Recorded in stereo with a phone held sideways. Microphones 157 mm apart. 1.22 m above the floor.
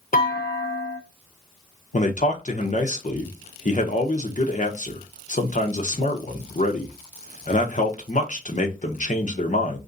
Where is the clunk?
60° left (ahead or behind), 1.0 m.